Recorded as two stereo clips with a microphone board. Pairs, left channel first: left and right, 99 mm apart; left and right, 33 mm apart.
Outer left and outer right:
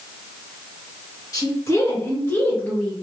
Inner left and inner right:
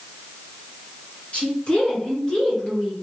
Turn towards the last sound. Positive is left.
turn(degrees=10)  # may be behind; listen again after turning